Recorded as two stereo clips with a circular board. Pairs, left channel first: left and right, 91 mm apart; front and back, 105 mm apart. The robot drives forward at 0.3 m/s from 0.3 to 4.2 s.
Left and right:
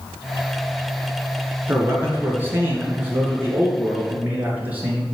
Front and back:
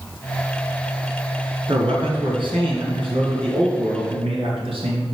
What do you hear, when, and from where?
1.7 s a man speaking: 150° right, 3 m; by 5.0 s 160° right, 4 m